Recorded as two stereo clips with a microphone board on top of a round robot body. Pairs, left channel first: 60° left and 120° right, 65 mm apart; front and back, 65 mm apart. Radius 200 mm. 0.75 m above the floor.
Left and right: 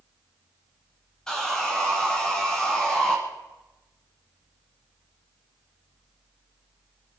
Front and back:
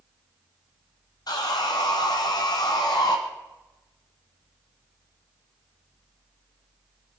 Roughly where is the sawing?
Ahead right.